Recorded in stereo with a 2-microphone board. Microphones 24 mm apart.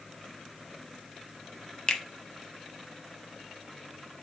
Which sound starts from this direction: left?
A finger snap, at 1.9 s.